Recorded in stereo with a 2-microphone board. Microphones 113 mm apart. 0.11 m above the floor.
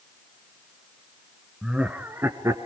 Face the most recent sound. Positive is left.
turn(degrees=-30)  # may be behind; listen again after turning